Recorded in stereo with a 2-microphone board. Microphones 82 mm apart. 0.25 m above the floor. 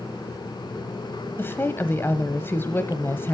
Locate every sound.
1.4 s a woman speaking: 25° left (ahead or behind), 1.0 m